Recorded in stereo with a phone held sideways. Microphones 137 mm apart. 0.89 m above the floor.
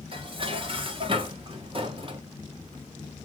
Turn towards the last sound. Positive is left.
turn(degrees=-40)  # may be behind; listen again after turning